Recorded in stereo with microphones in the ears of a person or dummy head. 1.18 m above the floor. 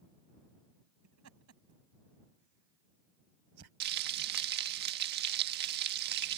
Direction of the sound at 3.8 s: 55° right (ahead or behind).